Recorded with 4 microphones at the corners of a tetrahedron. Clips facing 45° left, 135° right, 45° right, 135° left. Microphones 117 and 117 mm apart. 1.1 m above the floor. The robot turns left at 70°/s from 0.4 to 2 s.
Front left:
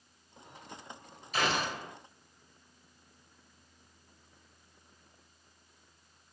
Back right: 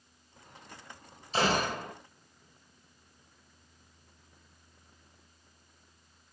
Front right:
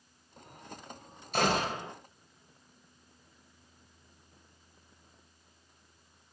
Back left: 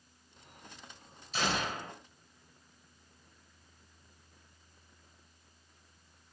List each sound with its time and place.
1.3 s a gunshot: 75° right, 1.9 m; by 1.9 s 120° right, 1.9 m